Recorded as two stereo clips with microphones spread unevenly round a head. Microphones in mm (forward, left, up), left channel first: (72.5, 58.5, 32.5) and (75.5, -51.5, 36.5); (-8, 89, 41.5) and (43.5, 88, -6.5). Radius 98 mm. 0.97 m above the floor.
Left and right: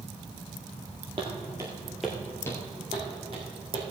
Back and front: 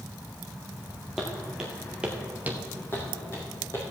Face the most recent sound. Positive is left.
turn(degrees=-150)